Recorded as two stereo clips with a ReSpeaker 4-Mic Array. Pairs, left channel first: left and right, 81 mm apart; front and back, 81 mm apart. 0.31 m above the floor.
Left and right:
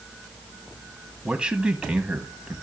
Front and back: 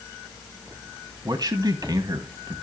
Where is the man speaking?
165° right, 1.7 m.